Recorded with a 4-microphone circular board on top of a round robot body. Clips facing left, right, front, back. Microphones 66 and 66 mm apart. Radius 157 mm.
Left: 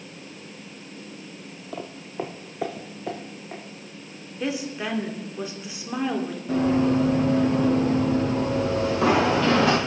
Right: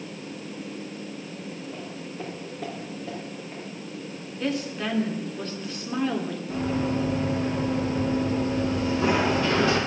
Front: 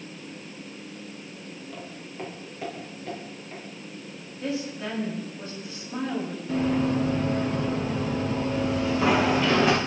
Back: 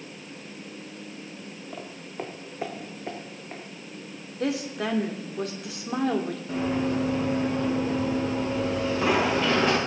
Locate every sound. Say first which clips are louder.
1.7 s footsteps: left 2 dB, back 4 dB; 110° left, 0.9 m; by 3.6 s 115° left, 3.5 m
4.4 s a woman speaking: even, back 3 dB; 170° left, 2.5 m
6.5 s running footsteps: left 7 dB, front 3 dB; 100° left, 7 m; by 9.8 s 90° left, 5.5 m